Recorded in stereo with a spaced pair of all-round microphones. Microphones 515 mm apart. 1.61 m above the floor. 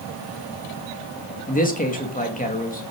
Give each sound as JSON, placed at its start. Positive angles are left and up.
{"t": 1.5, "sound": "a man speaking", "side_deg": 15, "distance_m": 3.5}